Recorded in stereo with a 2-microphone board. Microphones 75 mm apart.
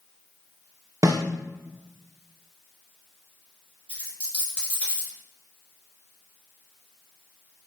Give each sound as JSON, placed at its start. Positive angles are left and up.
{"t": 1.0, "sound": "a snare drum", "side_deg": -50, "distance_m": 0.5}
{"t": 3.9, "sound": "a dropped coin", "side_deg": -15, "distance_m": 1.9}